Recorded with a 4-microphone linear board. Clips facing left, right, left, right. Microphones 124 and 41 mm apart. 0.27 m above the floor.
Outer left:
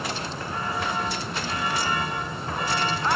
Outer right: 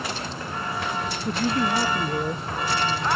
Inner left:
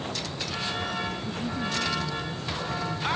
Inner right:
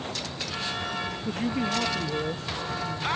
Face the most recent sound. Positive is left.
turn(degrees=-65)  # may be behind; listen again after turning